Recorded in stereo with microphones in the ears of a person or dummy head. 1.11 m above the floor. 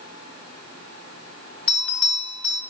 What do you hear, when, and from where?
1.7 s a bell: 10° left (ahead or behind), 1.4 m